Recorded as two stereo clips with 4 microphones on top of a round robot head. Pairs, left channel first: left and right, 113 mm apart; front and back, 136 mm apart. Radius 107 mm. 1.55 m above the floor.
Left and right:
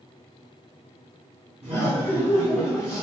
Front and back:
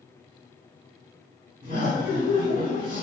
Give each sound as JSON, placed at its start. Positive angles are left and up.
{"t": 1.6, "sound": "laughter", "azimuth_deg": -140, "distance_m": 0.7}